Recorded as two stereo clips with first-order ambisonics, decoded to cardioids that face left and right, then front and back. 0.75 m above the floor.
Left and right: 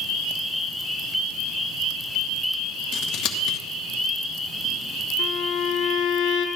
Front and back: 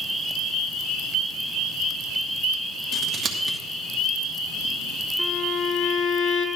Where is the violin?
55° left, 0.9 m.